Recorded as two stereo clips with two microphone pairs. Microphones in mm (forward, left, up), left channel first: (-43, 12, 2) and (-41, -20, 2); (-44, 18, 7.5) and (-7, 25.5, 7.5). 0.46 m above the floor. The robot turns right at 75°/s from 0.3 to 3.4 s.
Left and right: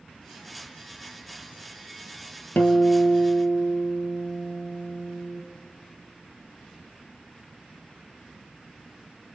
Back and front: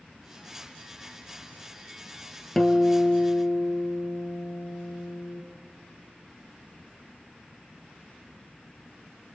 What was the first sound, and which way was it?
A guitar, 110° left.